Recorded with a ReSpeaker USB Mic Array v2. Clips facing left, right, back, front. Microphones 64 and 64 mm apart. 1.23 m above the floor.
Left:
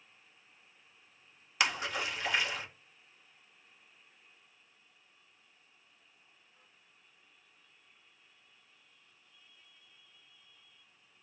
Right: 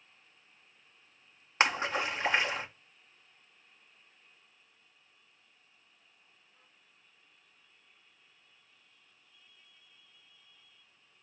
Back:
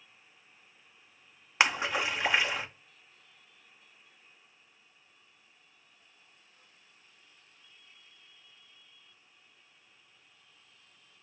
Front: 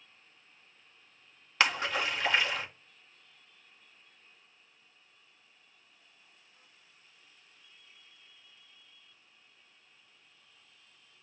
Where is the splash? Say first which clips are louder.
Right 4 dB, back 1 dB; 120° right, 0.7 m.